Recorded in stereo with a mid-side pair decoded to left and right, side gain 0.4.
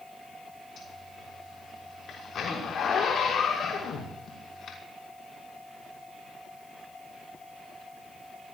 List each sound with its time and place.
0.8 s a zipper: 60° left, 6 m